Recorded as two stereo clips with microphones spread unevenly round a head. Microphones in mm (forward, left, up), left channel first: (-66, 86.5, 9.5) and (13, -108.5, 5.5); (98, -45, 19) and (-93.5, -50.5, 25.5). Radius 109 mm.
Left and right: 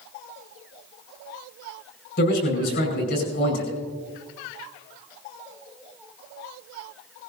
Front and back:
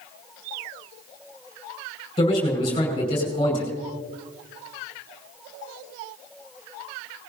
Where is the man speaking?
70° left, 5 m.